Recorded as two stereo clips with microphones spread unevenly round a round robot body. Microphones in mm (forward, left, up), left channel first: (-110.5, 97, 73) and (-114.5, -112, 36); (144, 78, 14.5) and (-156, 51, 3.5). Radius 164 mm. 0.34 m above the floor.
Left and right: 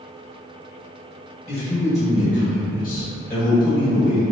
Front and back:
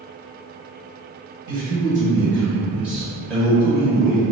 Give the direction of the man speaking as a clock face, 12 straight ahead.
7 o'clock.